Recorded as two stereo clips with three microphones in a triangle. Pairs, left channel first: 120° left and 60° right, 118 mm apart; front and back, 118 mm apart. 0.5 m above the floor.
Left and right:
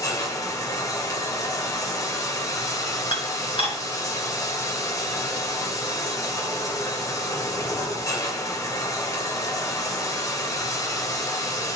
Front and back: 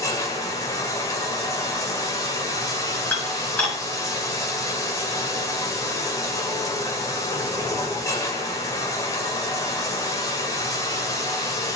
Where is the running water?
60° left, 1.5 m.